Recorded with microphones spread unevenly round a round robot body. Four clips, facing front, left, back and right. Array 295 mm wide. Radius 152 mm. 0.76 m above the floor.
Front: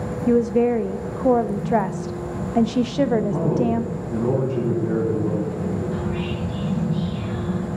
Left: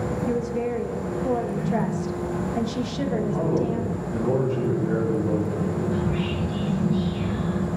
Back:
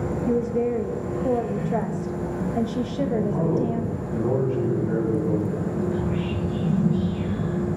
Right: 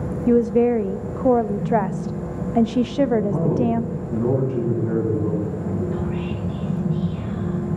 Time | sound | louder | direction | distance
0.3 | a woman speaking | right 12 dB, front 6 dB | 50° right | 0.6 m
3.1 | a man speaking | right 3 dB, front 2 dB | 55° right | 7 m
5.9 | whispering | even, even | 50° right | 6.5 m